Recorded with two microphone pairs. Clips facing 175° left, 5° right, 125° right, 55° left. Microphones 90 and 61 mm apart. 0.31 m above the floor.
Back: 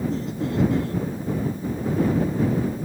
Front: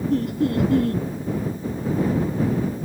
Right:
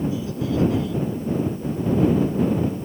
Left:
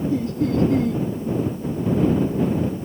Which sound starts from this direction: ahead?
Laughter, at 0.1 s.